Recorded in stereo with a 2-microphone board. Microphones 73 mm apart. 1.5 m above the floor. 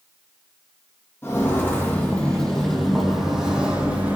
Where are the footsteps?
35° left (ahead or behind), 2 m; by 4.2 s 20° right (ahead or behind), 2.5 m.